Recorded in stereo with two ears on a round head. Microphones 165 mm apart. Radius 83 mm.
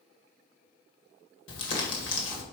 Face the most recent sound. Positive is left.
turn(degrees=65)  # may be behind; listen again after turning